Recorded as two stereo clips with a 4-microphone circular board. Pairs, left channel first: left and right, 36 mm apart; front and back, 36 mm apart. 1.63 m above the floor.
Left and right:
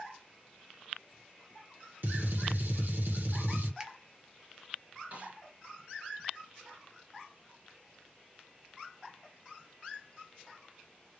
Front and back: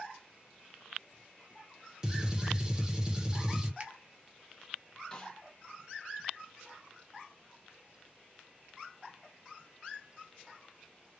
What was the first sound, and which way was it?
A gunshot, 110° right.